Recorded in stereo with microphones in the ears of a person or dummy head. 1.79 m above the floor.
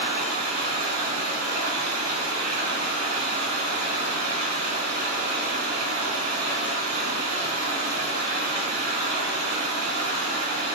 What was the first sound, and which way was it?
Running water, 45° right (ahead or behind).